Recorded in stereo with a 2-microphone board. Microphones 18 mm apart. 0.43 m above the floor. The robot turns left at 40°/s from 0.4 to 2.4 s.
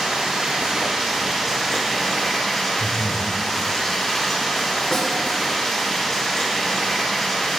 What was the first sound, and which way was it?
Running water, 115° right.